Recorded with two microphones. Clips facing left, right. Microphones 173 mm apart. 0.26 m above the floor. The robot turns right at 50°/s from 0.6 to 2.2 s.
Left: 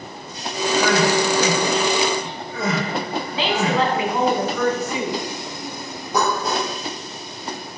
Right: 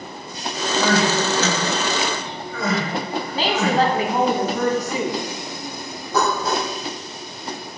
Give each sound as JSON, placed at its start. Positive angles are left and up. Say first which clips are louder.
{"t": 0.7, "sound": "crying", "louder": "left 1 dB", "side_deg": -40, "distance_m": 3.0}
{"t": 3.3, "sound": "a woman speaking", "louder": "right 1 dB", "side_deg": -40, "distance_m": 1.8}
{"t": 6.1, "sound": "dishes clattering", "louder": "even", "side_deg": 15, "distance_m": 3.5}